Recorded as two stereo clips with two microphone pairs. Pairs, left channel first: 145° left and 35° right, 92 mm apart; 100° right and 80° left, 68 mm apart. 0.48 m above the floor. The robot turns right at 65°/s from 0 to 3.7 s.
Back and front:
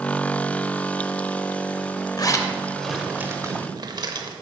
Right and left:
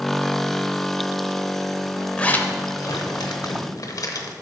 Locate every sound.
2.2 s a zipper: 170° right, 0.8 m; by 4.3 s 70° right, 0.8 m